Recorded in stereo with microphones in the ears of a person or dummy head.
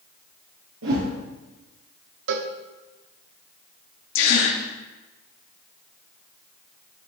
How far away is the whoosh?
About 4.5 m.